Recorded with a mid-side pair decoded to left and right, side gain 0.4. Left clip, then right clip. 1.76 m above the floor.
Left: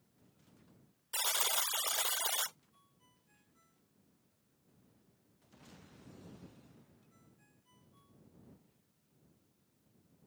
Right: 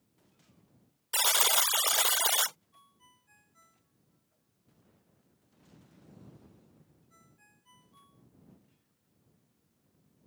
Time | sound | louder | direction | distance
1.1 | a buzzer | right 8 dB | 60° right | ?
2.7 | a ringtone | right 8 dB | 60° right | ?